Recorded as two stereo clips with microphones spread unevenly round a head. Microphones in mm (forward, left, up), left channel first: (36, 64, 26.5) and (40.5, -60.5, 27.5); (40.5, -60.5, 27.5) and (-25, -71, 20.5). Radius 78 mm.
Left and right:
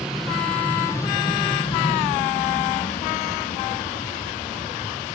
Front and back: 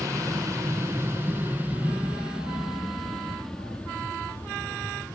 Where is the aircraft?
170° right; by 5.2 s 85° left.